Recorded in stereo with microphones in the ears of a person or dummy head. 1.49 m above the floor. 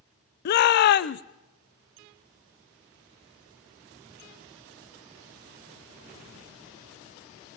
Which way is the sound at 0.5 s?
55° left (ahead or behind).